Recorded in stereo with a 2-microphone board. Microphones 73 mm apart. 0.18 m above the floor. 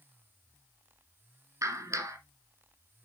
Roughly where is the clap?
Right.